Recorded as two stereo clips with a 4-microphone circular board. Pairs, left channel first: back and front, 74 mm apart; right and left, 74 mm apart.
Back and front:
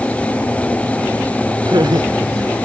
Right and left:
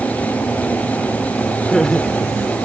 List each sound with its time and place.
1.6 s laughter: 5° right